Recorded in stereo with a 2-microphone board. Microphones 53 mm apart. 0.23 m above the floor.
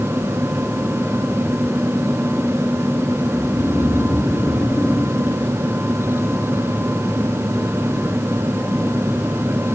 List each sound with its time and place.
3.3 s snoring: 60° left (ahead or behind), 5 m